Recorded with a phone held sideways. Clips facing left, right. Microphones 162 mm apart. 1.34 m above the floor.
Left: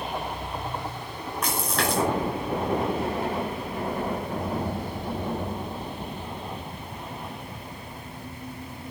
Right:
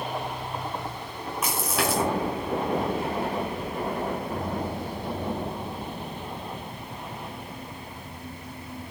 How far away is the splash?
About 5.5 m.